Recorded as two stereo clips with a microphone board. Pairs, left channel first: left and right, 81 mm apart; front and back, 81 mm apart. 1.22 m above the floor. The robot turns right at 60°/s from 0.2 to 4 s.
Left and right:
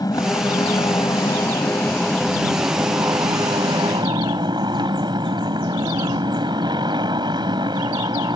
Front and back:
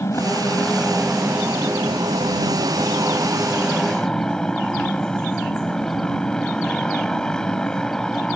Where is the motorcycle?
55° left; by 8.4 s 80° right.